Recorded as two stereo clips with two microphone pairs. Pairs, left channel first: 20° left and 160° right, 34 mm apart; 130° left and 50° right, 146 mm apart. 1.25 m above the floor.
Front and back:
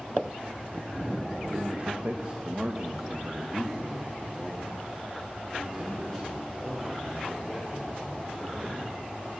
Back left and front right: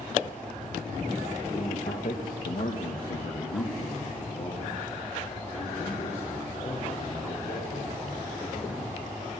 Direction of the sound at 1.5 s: 165° left.